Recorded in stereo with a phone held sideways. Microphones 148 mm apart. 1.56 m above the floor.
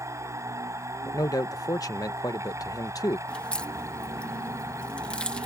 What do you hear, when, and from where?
0.0 s a machine running: 20° right (ahead or behind)
1.1 s a man speaking: 25° left (ahead or behind)
3.3 s a crack: 5° left (ahead or behind)